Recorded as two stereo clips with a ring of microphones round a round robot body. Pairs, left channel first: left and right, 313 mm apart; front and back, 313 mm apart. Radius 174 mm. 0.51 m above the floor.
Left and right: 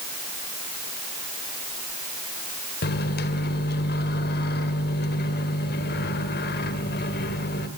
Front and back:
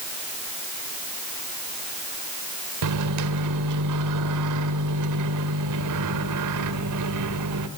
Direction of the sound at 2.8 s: 150° left.